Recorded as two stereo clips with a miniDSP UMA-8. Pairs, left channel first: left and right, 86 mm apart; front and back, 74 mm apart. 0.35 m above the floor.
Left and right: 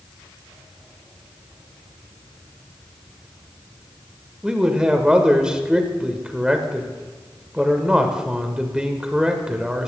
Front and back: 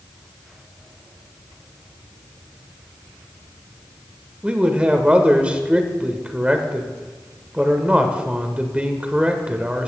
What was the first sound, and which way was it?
A man speaking, 145° right.